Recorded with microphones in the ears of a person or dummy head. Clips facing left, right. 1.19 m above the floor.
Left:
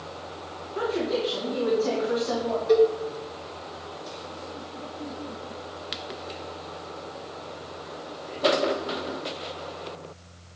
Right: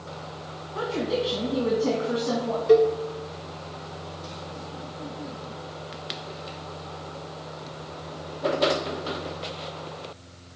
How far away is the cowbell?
About 1.0 m.